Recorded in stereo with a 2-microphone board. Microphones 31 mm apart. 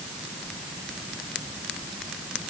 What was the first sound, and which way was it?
Only background noise.